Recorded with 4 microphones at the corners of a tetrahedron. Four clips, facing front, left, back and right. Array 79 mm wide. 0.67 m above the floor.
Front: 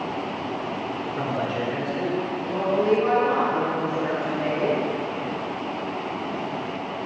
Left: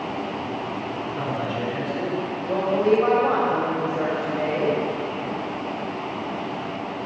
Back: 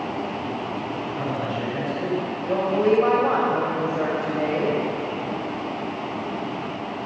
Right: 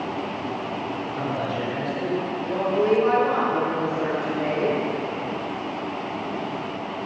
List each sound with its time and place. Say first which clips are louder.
1.2 s a man speaking: even, front 2 dB; 15° right, 3 m
2.5 s a woman speaking: left 1 dB, back 2 dB; 145° left, 3 m